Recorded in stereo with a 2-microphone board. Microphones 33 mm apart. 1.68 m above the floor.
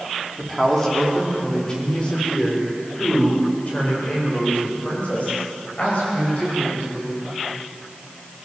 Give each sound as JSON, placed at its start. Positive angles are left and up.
{"t": 0.4, "sound": "a man speaking", "side_deg": 10, "distance_m": 4.5}